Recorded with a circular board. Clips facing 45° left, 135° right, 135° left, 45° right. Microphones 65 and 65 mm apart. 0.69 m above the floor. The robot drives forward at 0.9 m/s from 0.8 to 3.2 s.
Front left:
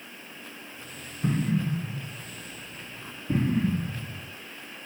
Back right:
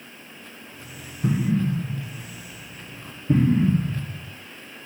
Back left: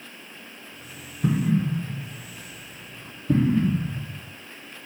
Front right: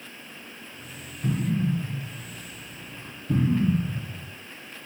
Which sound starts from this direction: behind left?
An explosion, at 1.2 s.